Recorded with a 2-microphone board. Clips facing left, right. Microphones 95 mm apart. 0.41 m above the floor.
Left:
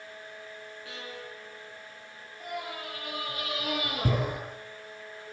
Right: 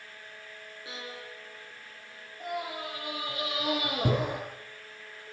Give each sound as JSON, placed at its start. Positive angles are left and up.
{"t": 0.8, "sound": "a violin", "side_deg": -30, "distance_m": 6.0}
{"t": 2.4, "sound": "a scream", "side_deg": -30, "distance_m": 7.0}